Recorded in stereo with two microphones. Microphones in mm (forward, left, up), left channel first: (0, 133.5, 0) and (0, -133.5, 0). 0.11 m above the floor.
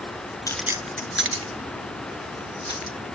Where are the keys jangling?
15° left (ahead or behind), 0.7 m; by 3.0 s 75° right (ahead or behind), 2.5 m.